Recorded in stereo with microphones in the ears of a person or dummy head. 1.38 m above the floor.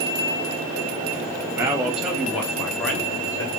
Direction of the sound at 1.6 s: 15° right (ahead or behind).